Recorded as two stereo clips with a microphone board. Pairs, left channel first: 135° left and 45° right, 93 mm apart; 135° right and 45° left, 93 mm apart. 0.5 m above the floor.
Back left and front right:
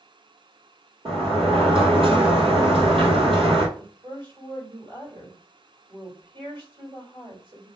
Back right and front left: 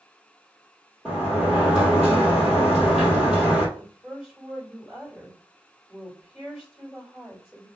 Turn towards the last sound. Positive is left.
turn(degrees=-40)